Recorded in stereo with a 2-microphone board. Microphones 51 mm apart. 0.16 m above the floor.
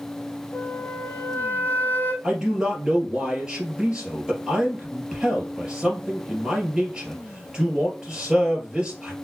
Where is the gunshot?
No gunshot in this recording.